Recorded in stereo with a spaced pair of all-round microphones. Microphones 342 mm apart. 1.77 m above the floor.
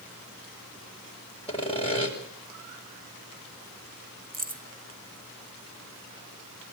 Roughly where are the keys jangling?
Right.